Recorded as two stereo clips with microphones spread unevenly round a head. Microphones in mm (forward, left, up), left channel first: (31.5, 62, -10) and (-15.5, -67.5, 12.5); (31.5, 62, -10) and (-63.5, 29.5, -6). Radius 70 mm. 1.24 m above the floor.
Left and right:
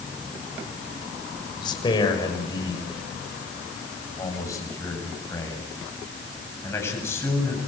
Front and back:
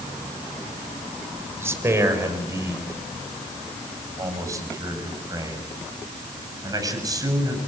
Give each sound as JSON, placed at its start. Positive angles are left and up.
{"t": 1.6, "sound": "a man speaking", "azimuth_deg": 135, "distance_m": 5.5}